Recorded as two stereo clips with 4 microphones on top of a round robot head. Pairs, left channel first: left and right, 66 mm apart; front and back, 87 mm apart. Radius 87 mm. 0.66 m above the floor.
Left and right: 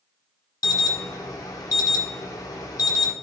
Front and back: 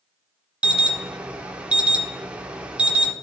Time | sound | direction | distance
0.6 | an alarm | 105° left | 1.3 m